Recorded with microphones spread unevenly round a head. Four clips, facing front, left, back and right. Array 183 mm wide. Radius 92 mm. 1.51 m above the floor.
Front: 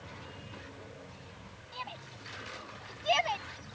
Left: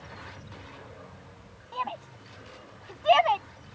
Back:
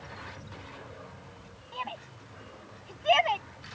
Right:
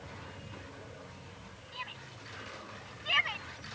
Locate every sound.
1.7 s a shout: 115° left; by 3.5 s 110° left